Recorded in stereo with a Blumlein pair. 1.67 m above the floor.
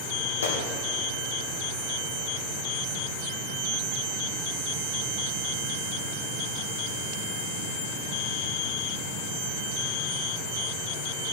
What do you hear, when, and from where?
0.4 s a gunshot: 65° left, 1.4 m